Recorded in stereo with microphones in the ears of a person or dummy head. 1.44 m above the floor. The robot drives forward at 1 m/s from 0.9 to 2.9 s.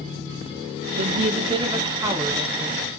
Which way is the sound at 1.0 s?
50° right (ahead or behind).